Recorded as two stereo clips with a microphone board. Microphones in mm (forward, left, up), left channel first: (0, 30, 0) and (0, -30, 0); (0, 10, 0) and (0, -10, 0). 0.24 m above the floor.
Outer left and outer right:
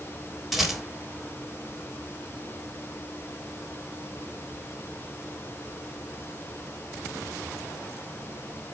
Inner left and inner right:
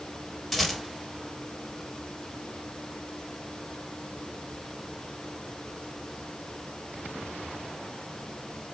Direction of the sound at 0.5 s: Centre (ahead or behind).